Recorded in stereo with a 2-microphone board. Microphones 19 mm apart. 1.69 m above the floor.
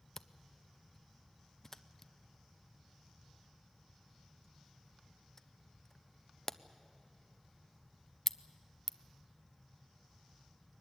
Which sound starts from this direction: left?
A camera shutter, at 0.2 s.